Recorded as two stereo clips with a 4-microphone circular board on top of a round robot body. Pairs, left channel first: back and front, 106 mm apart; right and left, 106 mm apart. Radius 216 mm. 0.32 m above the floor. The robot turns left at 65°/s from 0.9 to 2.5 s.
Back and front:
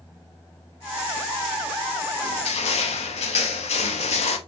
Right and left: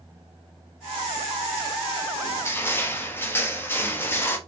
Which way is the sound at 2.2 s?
140° right.